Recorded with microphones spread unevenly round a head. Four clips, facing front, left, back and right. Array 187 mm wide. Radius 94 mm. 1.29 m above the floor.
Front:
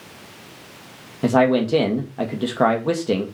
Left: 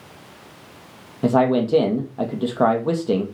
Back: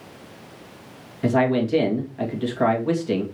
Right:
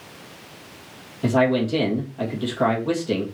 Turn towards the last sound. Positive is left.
turn(degrees=40)